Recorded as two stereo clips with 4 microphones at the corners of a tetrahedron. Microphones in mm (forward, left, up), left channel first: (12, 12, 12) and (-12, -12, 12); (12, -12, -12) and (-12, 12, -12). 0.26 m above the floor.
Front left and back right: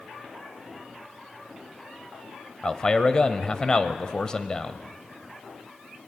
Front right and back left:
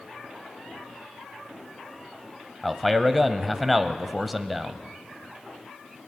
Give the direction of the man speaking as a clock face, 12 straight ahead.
10 o'clock.